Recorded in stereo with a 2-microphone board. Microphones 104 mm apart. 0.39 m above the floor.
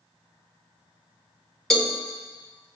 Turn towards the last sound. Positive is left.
turn(degrees=5)  # may be behind; listen again after turning